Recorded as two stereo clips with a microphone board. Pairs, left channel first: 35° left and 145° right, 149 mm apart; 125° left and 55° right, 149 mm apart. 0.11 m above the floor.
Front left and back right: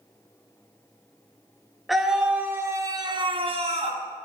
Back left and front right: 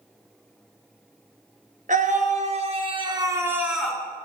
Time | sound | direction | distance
1.9 | a scream | 55° right | 3 m